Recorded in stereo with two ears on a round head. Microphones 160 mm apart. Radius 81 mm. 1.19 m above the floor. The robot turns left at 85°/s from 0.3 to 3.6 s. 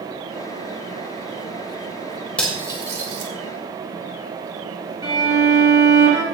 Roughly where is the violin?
Right.